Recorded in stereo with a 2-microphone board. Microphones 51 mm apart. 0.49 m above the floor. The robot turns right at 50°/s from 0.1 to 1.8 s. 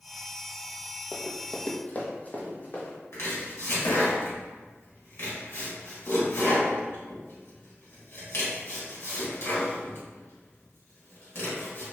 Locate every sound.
1.1 s running footsteps: 20° left (ahead or behind), 0.5 m; by 3.0 s 40° left (ahead or behind), 1.3 m
3.1 s chopping: 60° left (ahead or behind), 1.2 m